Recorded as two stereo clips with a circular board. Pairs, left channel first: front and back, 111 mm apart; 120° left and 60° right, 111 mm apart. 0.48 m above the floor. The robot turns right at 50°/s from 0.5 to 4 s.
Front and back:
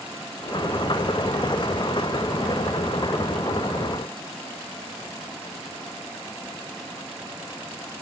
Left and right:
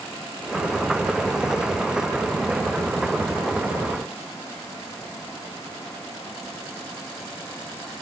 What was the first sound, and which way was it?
Only background noise.